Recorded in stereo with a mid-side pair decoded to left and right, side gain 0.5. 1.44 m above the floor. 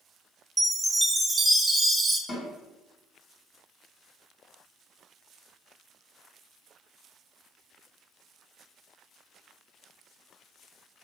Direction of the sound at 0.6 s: 20° right.